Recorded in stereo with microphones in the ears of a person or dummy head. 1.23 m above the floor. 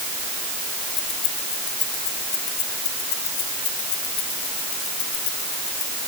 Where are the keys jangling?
35° left (ahead or behind).